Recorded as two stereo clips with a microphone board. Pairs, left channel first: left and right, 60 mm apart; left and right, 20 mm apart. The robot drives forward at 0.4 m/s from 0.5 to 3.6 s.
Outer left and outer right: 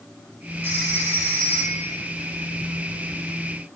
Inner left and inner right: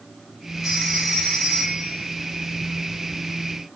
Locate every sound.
0.6 s a phone ringing: 35° right (ahead or behind), 4 m; by 2.0 s 40° right (ahead or behind), 4 m